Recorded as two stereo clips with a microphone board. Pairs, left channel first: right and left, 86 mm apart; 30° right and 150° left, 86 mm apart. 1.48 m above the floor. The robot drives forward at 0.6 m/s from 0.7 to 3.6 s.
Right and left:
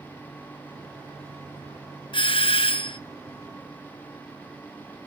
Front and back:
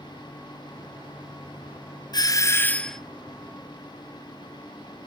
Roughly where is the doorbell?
Right.